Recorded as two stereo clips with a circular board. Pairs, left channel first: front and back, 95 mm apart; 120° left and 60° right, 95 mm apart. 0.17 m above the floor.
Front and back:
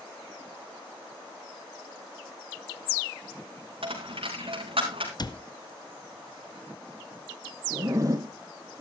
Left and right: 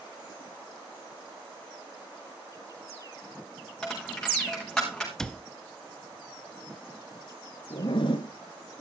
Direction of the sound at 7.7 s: 130° left.